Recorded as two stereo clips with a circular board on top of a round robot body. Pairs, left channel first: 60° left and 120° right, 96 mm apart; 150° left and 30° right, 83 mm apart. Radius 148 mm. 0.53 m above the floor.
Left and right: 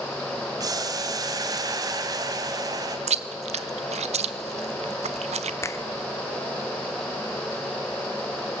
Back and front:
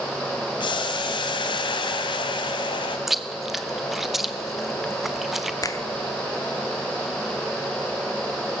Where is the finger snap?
115° left, 1.3 m.